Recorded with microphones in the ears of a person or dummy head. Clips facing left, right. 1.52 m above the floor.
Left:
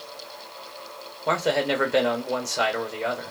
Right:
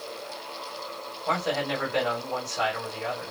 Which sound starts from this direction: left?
A man speaking, at 1.3 s.